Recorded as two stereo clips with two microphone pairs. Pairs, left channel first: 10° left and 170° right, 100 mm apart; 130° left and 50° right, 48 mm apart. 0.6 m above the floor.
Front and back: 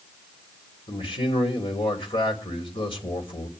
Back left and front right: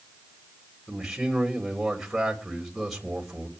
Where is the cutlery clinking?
No cutlery clinking in this recording.